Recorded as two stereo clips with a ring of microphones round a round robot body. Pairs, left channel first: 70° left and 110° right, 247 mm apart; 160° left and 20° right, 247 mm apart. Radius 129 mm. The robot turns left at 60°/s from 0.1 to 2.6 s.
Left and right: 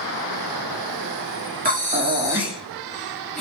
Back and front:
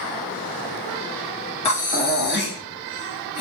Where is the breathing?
145° right, 0.8 m; by 3.4 s 155° left, 0.8 m.